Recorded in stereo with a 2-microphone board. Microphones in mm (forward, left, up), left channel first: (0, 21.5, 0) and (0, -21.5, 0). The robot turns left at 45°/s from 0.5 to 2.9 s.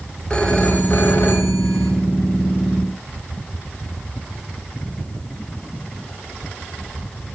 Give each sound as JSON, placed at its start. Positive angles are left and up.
{"t": 0.3, "sound": "a phone ringing", "azimuth_deg": 155, "distance_m": 1.6}